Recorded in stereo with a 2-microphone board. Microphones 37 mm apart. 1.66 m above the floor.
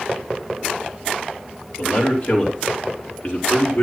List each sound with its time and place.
1.8 s a man speaking: 40° left (ahead or behind), 5 m; by 3.8 s 55° left (ahead or behind), 4.5 m